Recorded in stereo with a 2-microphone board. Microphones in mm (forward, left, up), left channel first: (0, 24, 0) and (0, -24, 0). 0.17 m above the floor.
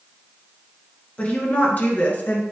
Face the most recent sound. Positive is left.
turn(degrees=40)  # may be behind; listen again after turning